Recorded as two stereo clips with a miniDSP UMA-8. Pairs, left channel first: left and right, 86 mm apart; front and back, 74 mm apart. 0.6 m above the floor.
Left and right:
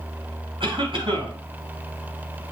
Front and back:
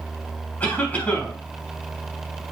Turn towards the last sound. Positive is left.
turn(degrees=-70)